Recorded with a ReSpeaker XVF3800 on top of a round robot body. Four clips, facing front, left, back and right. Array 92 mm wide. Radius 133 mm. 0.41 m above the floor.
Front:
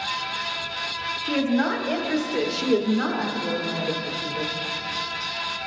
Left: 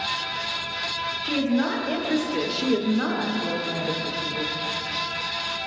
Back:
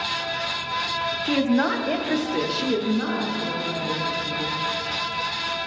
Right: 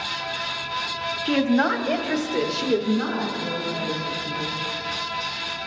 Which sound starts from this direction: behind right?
A woman speaking, at 1.2 s.